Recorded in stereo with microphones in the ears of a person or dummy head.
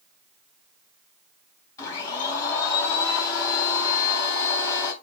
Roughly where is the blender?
Left.